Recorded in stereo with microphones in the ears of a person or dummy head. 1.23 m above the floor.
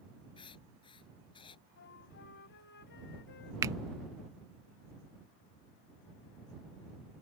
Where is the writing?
25° left (ahead or behind).